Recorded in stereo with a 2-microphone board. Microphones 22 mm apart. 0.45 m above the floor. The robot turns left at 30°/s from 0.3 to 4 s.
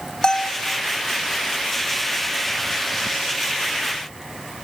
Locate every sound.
0.2 s a bell: 35° left (ahead or behind), 3.5 m; by 0.7 s 25° left (ahead or behind), 3.5 m